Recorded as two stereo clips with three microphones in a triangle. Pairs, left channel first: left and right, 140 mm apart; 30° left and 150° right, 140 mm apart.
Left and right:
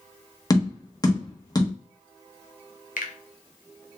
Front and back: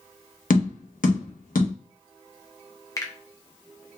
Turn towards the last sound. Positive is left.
turn(degrees=95)